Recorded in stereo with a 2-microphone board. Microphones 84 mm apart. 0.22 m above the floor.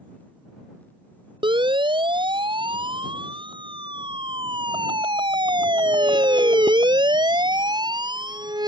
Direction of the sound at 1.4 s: 80° right.